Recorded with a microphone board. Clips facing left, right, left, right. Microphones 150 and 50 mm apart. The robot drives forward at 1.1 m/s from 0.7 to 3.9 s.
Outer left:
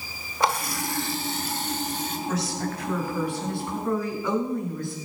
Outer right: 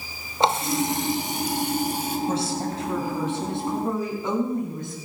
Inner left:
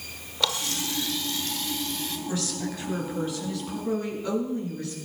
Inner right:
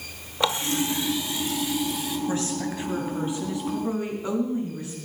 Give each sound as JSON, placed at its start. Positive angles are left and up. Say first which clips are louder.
{"t": 0.4, "sound": "a running tap", "louder": "outer right 4 dB, inner right 5 dB", "side_deg": -25, "distance_m": 1.1}
{"t": 2.3, "sound": "a woman speaking", "louder": "outer right 3 dB, inner right 1 dB", "side_deg": -30, "distance_m": 4.5}